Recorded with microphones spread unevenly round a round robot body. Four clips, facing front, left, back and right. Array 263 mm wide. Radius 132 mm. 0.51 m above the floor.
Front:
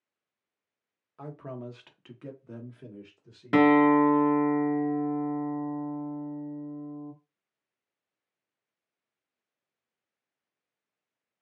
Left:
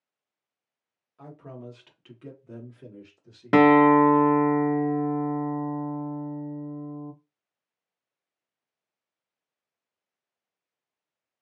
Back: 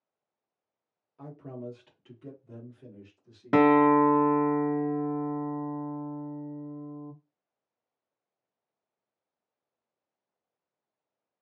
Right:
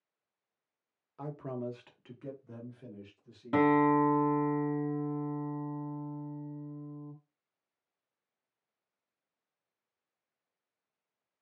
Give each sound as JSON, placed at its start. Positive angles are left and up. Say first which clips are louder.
{"t": 1.2, "sound": "a man speaking", "louder": "right 4 dB, front 2 dB", "azimuth_deg": -60, "distance_m": 1.2}
{"t": 3.5, "sound": "a guitar", "louder": "left 9 dB, even", "azimuth_deg": 105, "distance_m": 0.5}